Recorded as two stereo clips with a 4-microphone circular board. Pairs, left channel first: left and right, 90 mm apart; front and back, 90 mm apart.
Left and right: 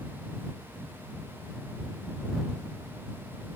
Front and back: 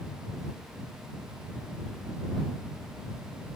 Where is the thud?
I don't hear a thud.